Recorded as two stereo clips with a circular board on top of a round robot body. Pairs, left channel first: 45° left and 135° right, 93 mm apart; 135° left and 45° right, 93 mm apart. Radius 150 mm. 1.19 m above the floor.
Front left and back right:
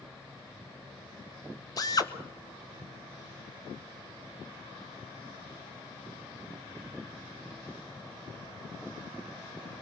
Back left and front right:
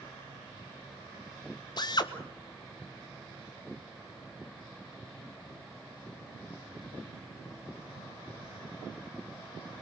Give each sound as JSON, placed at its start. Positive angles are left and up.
{"t": 1.8, "sound": "a drill", "azimuth_deg": 95, "distance_m": 1.7}